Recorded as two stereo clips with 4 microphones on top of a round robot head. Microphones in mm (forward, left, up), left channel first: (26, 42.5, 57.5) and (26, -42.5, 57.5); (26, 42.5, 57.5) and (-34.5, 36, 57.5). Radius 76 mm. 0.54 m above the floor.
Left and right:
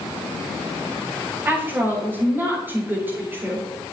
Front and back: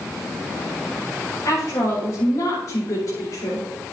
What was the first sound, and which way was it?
A woman speaking, 25° right.